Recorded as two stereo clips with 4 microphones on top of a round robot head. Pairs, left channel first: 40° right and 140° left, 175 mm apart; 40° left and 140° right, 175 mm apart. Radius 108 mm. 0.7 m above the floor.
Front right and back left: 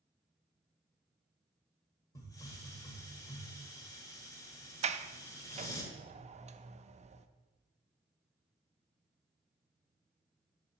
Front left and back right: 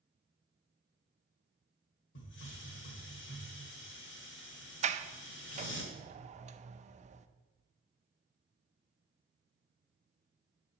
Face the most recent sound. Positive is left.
turn(degrees=180)